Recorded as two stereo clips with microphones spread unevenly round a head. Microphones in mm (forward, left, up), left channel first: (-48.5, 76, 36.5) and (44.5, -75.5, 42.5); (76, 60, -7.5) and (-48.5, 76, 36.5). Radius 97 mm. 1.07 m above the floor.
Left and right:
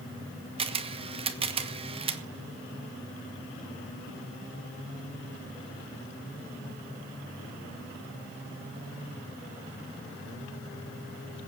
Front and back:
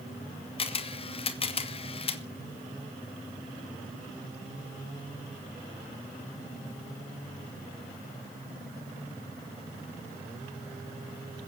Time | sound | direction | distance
0.6 | a camera shutter | straight ahead | 1.5 m